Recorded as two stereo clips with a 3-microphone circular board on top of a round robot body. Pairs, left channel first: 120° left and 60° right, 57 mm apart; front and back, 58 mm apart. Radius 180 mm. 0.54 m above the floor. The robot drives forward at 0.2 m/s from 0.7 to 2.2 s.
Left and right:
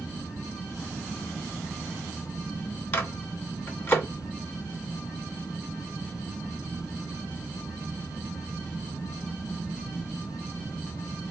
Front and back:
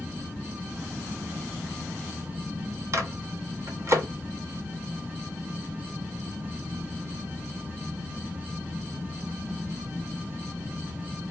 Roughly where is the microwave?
Behind.